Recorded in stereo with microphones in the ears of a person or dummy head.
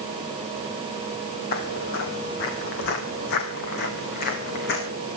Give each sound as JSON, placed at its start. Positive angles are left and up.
{"t": 1.5, "sound": "footsteps", "side_deg": 50, "distance_m": 2.0}